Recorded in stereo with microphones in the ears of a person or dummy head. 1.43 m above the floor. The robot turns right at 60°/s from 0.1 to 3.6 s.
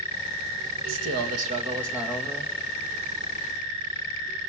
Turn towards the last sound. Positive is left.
turn(degrees=90)